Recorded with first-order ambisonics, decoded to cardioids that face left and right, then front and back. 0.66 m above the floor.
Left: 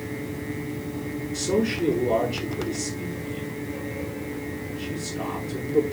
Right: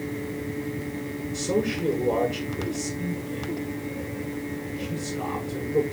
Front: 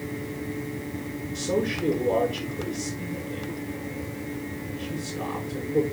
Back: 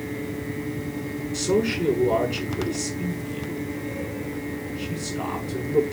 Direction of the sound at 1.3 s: 175° left.